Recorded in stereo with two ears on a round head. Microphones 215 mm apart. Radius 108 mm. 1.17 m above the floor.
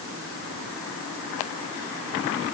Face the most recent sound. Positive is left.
No sound to turn to.